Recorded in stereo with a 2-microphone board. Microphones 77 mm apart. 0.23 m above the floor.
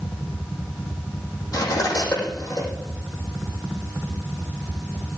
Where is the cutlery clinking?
50° left (ahead or behind), 6.5 m.